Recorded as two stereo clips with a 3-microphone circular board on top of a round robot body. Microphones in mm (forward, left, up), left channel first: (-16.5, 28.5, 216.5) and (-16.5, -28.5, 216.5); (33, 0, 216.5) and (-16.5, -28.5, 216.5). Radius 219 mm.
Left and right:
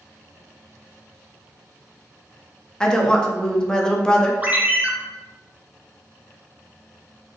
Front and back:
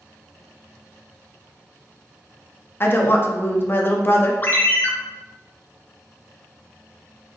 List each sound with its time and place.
2.8 s a woman speaking: 20° left, 0.9 m
4.4 s a ringtone: 25° right, 0.7 m